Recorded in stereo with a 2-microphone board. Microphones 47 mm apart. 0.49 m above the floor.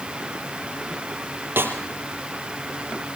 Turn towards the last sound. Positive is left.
turn(degrees=-55)  # may be behind; listen again after turning